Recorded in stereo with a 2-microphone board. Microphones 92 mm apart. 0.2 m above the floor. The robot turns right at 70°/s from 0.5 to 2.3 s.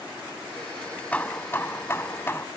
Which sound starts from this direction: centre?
Hammering, at 1.1 s.